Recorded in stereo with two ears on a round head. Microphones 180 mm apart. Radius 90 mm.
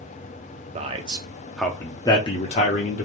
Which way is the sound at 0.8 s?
35° right (ahead or behind).